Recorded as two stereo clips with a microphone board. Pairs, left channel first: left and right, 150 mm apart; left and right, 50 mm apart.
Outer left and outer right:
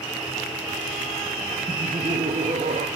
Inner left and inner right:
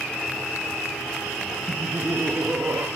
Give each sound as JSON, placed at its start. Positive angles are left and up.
{"t": 1.7, "sound": "laughter", "side_deg": -40, "distance_m": 1.8}